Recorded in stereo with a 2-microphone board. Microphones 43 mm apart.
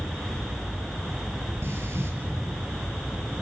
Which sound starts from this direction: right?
Breathing, at 1.6 s.